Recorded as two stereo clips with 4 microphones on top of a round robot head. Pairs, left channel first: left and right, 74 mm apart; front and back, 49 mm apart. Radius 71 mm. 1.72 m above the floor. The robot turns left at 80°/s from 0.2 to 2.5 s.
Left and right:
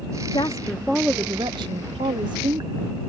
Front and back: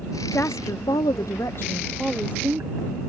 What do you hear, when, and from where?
0.3 s a woman speaking: 45° left; by 2.8 s 125° right